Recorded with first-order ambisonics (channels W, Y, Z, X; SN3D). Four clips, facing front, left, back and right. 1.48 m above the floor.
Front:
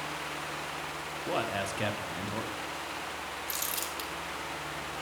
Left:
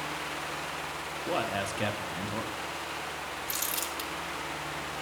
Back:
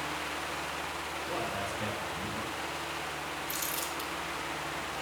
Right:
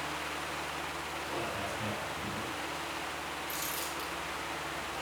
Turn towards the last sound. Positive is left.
turn(degrees=45)